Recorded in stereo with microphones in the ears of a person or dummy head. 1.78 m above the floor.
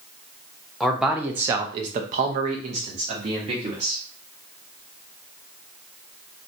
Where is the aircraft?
I don't hear an aircraft.